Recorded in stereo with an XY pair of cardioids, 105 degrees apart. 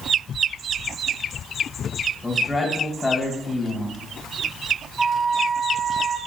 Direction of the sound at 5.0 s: 15° right.